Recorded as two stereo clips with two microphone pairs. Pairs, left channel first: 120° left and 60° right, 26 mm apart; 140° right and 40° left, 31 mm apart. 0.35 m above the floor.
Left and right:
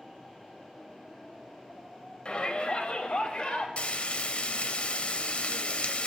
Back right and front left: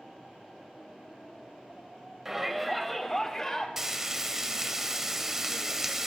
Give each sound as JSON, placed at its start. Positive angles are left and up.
{"t": 2.2, "sound": "a shout", "azimuth_deg": 115, "distance_m": 1.6}
{"t": 3.8, "sound": "frying", "azimuth_deg": 115, "distance_m": 0.9}